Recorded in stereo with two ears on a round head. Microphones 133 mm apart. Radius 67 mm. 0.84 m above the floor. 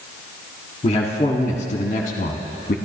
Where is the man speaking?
40° left (ahead or behind), 1.7 m; by 2.8 s 60° left (ahead or behind), 1.0 m.